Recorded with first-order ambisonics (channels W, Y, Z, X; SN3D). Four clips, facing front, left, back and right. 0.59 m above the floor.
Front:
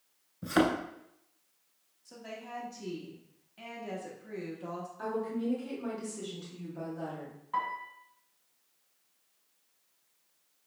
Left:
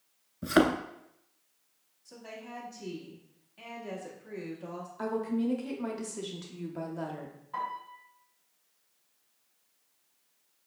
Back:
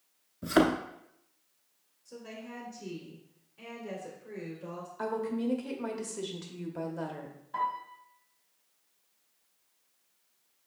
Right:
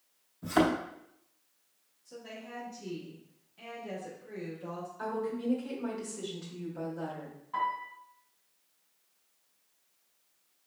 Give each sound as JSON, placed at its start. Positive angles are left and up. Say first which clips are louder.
{"t": 0.4, "sound": "a thud", "louder": "left 2 dB, back 2 dB", "azimuth_deg": 105, "distance_m": 0.6}
{"t": 2.0, "sound": "a woman speaking", "louder": "even, even", "azimuth_deg": 25, "distance_m": 1.2}
{"t": 5.0, "sound": "a woman speaking", "louder": "left 4 dB, back 2 dB", "azimuth_deg": 145, "distance_m": 0.7}
{"t": 7.5, "sound": "a piano", "louder": "right 4 dB, back 1 dB", "azimuth_deg": -5, "distance_m": 1.9}